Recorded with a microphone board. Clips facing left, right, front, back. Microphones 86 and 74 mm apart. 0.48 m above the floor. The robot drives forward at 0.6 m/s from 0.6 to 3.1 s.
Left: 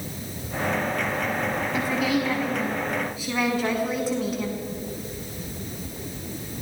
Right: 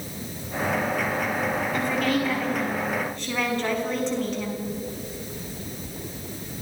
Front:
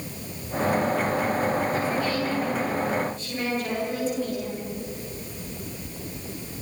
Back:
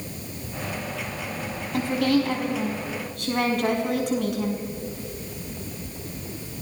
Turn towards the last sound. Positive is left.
turn(degrees=175)